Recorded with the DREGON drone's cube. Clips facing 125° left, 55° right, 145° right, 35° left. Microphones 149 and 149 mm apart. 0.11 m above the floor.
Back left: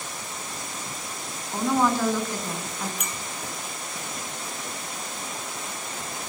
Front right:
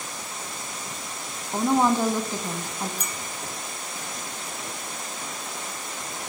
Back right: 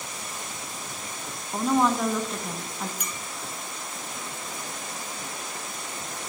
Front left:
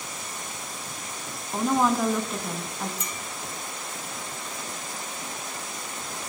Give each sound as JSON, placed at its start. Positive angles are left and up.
{"t": 1.5, "sound": "a woman speaking", "azimuth_deg": -50, "distance_m": 1.1}
{"t": 3.0, "sound": "a clink", "azimuth_deg": -20, "distance_m": 1.3}